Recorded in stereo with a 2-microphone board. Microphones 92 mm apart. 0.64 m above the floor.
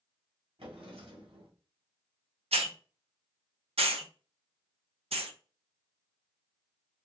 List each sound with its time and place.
0.6 s a drawer: 70° right (ahead or behind), 1.6 m
2.5 s a hiss: 85° right, 0.6 m